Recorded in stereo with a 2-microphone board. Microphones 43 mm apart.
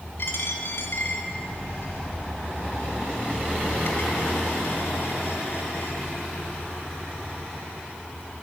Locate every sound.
0.2 s a dropped coin: 65° left (ahead or behind), 2 m